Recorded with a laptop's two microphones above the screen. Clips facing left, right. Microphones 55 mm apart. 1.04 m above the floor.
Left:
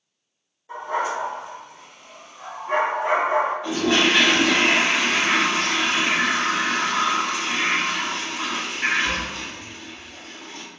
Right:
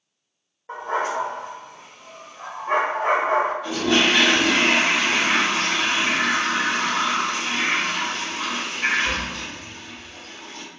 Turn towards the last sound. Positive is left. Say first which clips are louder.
# even
turn(degrees=25)  # may be behind; listen again after turning